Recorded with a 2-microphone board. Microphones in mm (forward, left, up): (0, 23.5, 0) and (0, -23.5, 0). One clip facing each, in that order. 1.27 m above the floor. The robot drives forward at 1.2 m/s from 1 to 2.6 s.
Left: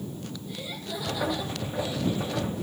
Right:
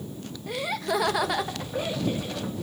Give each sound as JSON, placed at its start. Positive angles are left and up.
{"t": 0.5, "sound": "laughter", "side_deg": -75, "distance_m": 1.8}